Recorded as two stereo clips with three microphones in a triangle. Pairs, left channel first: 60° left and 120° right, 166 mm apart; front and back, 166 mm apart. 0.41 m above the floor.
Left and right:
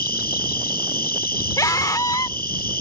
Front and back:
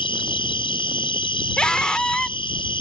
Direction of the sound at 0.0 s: 60° left.